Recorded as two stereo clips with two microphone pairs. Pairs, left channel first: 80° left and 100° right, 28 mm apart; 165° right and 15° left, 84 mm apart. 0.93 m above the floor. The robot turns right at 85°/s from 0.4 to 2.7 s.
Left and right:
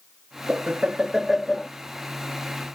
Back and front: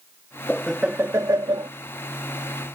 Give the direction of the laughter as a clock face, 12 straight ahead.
3 o'clock.